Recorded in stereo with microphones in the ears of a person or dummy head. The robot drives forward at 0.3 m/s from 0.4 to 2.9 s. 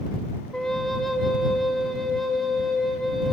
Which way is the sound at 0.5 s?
Centre (ahead or behind).